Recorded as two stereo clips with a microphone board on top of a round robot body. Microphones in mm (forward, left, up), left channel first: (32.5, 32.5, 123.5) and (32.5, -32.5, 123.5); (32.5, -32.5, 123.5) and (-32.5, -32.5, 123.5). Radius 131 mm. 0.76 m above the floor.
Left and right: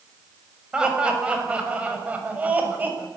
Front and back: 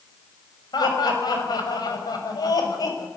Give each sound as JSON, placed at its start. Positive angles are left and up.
{"t": 0.7, "sound": "laughter", "azimuth_deg": -15, "distance_m": 6.5}